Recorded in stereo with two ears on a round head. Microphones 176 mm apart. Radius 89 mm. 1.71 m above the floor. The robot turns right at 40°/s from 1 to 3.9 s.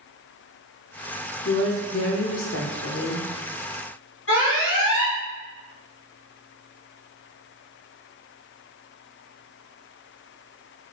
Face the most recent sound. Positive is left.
turn(degrees=65)  # may be behind; listen again after turning